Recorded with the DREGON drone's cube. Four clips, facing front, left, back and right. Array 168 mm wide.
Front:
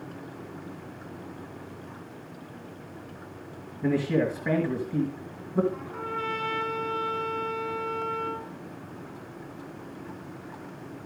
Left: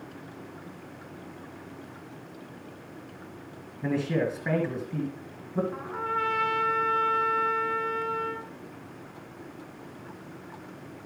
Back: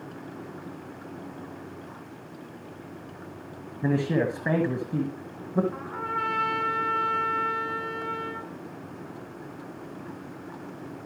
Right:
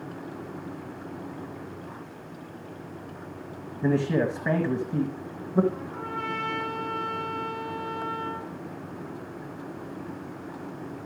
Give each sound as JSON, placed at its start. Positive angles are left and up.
{"t": 3.8, "sound": "a man speaking", "azimuth_deg": -140, "distance_m": 1.8}
{"t": 5.7, "sound": "a trumpet", "azimuth_deg": 140, "distance_m": 2.0}